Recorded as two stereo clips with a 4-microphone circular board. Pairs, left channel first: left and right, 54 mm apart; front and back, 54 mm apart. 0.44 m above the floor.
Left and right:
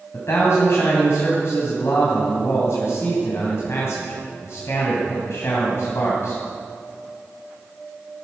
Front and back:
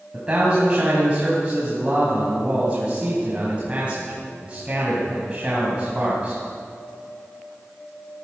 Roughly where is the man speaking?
Behind left.